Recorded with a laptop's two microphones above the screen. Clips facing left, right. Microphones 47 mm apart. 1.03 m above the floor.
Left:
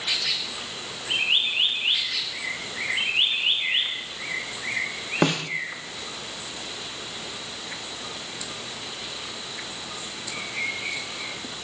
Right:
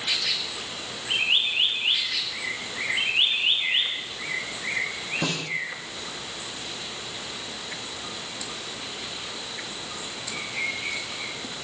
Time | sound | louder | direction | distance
5.2 | a snare drum | left 8 dB | 65° left (ahead or behind) | 1.6 m